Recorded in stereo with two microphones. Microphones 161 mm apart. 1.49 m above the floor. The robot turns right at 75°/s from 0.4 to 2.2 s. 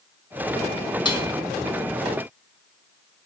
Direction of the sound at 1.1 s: 25° left (ahead or behind).